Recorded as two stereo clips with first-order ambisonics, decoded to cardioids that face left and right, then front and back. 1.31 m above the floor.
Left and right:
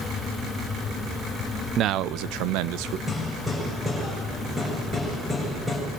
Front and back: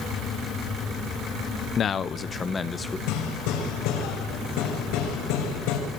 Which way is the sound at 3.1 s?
10° right.